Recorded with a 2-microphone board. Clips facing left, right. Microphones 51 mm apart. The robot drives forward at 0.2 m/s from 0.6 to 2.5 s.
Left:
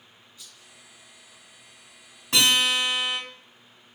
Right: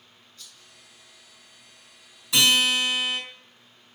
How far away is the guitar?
About 1.7 m.